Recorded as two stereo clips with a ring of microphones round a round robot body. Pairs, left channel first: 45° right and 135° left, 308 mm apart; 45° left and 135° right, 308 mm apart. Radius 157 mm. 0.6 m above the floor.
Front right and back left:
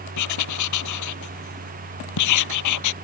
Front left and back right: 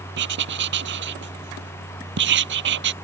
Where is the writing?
80° right.